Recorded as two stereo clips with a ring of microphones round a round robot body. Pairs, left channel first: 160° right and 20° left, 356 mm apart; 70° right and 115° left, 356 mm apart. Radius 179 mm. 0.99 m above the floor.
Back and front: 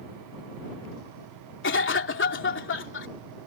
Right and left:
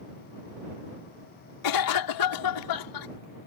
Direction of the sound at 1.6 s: 100° right.